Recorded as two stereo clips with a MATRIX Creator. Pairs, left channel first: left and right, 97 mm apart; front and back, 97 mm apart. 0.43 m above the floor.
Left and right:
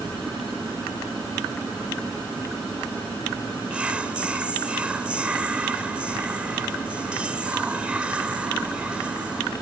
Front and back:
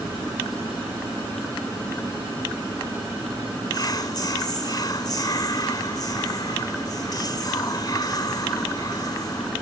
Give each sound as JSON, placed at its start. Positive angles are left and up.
{"t": 3.7, "sound": "whispering", "azimuth_deg": -15}